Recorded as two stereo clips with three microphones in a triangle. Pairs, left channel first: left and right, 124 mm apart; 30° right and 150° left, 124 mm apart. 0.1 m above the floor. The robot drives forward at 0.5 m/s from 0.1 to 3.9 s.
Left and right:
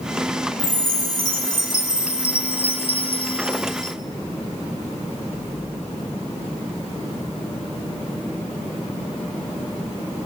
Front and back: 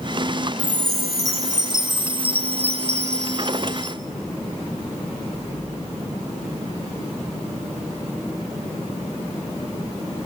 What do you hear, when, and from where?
0.6 s a chime: 75° left, 1.2 m; by 4.0 s 140° left, 1.7 m